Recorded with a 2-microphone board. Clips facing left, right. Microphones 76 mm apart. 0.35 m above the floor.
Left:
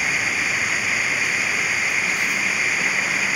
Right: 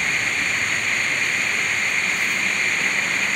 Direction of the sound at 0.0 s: 5° left (ahead or behind).